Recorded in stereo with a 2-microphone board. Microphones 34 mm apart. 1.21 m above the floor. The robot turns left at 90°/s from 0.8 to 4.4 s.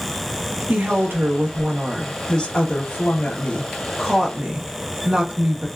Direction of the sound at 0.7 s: 65° right.